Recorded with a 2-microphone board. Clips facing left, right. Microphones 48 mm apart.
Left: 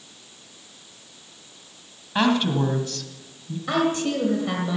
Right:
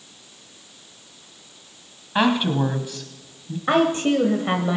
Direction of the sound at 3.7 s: 35° right (ahead or behind).